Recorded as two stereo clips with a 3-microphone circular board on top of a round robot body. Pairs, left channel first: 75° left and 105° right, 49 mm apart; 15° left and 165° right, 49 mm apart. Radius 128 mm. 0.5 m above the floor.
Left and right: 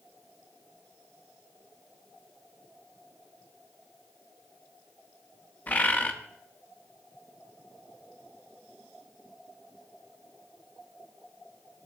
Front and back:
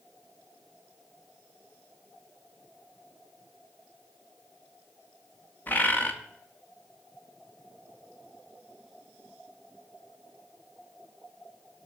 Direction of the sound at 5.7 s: 40° left.